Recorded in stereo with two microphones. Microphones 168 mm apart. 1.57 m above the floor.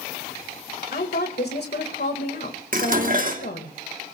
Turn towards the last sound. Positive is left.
turn(degrees=-55)  # may be behind; listen again after turning